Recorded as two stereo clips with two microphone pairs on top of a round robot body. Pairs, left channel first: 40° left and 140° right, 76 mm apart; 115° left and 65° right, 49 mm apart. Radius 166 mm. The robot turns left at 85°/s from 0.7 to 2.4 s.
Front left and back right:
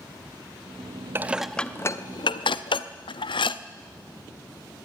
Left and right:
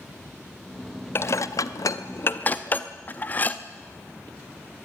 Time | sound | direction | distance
1.1 | dishes clattering | 160° left | 0.7 m